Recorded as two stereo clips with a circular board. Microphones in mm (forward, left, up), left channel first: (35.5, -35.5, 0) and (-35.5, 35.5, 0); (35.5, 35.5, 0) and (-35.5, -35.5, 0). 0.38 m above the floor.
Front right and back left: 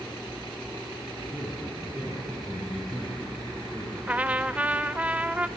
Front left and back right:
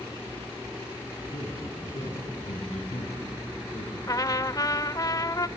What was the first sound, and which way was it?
A man speaking, 55° left.